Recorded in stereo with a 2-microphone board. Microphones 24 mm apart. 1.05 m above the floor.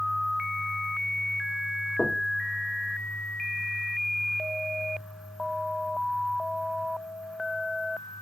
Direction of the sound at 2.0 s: 20° left (ahead or behind).